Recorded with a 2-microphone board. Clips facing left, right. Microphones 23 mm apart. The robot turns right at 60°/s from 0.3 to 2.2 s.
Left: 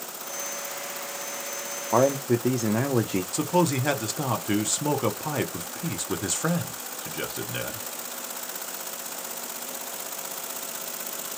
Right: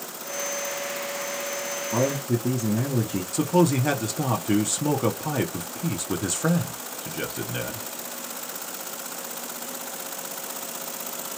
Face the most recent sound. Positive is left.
turn(degrees=10)  # may be behind; listen again after turning